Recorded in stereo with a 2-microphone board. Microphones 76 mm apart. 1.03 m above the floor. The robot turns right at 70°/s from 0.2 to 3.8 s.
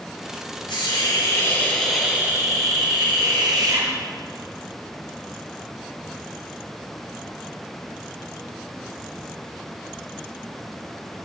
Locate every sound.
0.7 s a hiss: 90° left, 5.5 m; by 3.9 s 50° right, 5.5 m